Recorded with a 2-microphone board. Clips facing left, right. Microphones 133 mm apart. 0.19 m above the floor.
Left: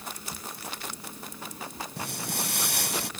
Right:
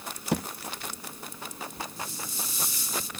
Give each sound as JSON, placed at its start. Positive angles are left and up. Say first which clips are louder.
{"t": 0.3, "sound": "a thud", "louder": "right 13 dB", "side_deg": -85}
{"t": 2.0, "sound": "footsteps", "louder": "left 4 dB", "side_deg": 75}